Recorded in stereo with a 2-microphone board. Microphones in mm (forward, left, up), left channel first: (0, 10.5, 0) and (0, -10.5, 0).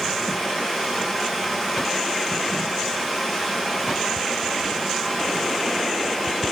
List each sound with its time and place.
0.0 s running water: 15° right (ahead or behind), 5.5 m